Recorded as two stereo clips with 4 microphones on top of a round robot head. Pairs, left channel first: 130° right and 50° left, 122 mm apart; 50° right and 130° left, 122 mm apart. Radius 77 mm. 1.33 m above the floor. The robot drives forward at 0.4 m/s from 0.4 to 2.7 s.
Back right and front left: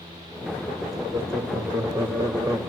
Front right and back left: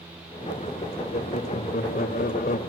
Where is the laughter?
15° right, 1.3 m; by 2.6 s 25° right, 0.8 m.